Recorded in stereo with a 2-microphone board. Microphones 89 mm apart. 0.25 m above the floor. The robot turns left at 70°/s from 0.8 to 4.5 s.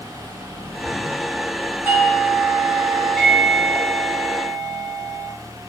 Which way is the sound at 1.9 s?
25° right (ahead or behind).